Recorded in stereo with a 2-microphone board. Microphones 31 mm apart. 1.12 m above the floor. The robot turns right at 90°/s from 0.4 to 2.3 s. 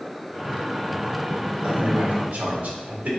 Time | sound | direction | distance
1.6 | a man speaking | 30° right (ahead or behind) | 2 m